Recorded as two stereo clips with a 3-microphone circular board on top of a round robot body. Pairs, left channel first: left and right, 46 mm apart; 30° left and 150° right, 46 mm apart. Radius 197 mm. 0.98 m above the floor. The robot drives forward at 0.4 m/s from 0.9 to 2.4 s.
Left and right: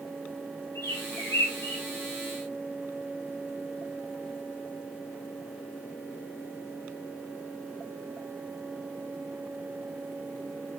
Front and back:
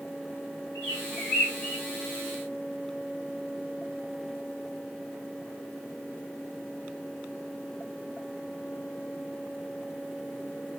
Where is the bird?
100° left, 2 m; by 1.8 s 110° left, 2 m.